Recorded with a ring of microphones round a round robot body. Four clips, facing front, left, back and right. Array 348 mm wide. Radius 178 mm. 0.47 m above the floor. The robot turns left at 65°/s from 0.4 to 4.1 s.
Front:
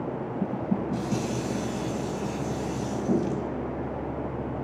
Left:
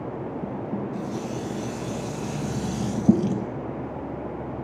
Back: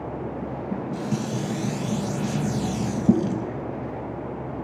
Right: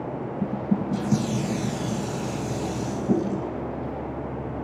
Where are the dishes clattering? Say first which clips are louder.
Right 8 dB, front 2 dB; 55° right, 2.5 m; by 3.5 s 105° left, 2.5 m.